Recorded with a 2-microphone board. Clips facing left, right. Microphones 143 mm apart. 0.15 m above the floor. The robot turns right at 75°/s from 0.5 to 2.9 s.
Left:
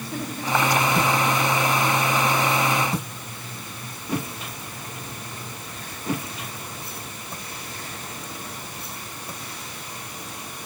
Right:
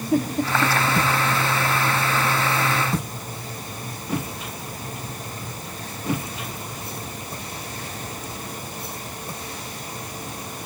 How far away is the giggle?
About 8.5 m.